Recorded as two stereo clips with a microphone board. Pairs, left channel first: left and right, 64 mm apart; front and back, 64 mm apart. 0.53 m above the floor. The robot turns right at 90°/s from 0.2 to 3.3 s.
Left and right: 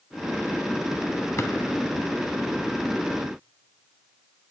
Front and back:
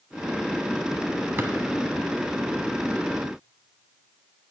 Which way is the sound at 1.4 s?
130° left.